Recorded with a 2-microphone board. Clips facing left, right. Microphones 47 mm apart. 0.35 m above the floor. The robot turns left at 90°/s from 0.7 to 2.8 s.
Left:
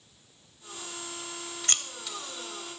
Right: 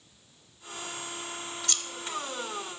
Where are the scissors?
40° left (ahead or behind), 0.8 m; by 1.8 s 50° left (ahead or behind), 0.8 m.